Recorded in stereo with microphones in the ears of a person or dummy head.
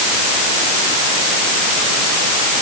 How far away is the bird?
No bird in this recording.